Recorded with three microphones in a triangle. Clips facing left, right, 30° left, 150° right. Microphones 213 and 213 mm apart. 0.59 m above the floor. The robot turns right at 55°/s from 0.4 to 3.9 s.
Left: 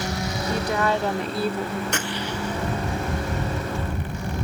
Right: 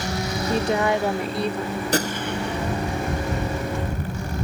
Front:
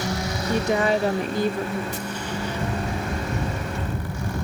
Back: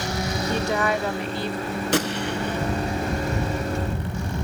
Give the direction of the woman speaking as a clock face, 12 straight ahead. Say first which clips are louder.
Right 3 dB, front 4 dB; 2 o'clock.